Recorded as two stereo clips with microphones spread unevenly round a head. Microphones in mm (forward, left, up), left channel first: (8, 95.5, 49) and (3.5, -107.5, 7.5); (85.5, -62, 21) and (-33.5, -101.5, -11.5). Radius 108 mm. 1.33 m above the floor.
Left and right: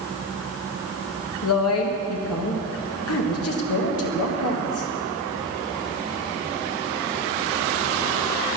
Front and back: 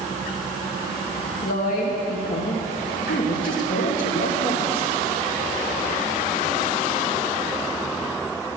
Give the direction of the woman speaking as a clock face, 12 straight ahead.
10 o'clock.